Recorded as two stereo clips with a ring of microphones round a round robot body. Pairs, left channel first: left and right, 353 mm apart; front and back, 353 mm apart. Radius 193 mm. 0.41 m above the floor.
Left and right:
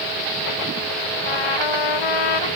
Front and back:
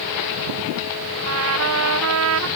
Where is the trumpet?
125° left.